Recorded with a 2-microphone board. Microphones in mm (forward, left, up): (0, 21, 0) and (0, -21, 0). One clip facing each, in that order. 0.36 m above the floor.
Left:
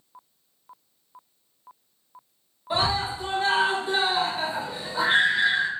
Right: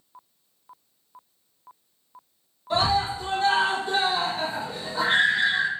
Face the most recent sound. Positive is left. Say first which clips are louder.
# right 2 dB
turn(degrees=15)  # may be behind; listen again after turning